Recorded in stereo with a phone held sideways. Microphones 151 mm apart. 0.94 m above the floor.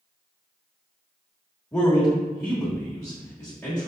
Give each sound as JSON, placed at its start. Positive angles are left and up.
{"t": 1.7, "sound": "a man speaking", "side_deg": 10, "distance_m": 1.4}